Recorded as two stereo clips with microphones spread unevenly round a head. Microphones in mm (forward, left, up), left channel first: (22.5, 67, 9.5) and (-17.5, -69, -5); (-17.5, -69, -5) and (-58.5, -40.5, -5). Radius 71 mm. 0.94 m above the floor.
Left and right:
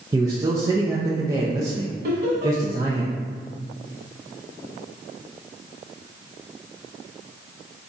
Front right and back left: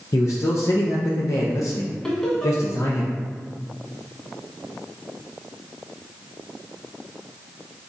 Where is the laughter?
110° right, 1.4 m.